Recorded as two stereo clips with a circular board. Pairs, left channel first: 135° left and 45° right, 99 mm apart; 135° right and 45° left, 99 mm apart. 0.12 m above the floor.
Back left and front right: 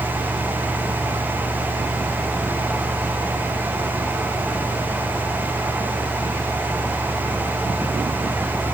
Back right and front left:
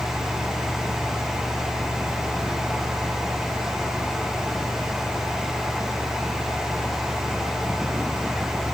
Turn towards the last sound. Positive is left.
No sound to turn to.